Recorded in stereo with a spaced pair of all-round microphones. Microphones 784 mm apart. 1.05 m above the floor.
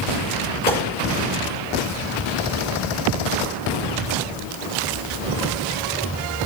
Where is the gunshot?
55° right (ahead or behind), 5.5 m.